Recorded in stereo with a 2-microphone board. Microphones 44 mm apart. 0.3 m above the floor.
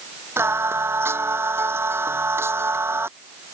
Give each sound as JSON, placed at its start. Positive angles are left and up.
{"t": 0.4, "sound": "singing", "side_deg": -70}